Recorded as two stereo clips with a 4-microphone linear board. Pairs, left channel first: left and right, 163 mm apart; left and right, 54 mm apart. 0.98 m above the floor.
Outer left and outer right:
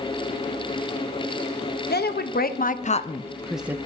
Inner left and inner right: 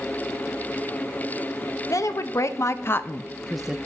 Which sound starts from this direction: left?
A woman speaking, at 1.9 s.